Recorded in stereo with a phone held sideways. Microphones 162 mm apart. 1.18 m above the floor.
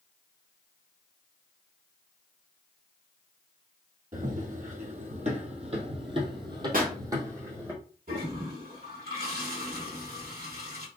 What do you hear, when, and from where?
4.1 s running footsteps: 55° right (ahead or behind), 2 m; by 7.7 s 15° right (ahead or behind), 2.5 m
6.7 s a pop: 60° right (ahead or behind), 1.4 m
8.1 s a toilet flushing: 70° right (ahead or behind), 1.7 m